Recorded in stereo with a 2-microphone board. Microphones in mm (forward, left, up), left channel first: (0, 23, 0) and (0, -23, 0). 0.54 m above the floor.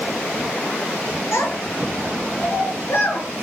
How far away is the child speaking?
About 5.5 m.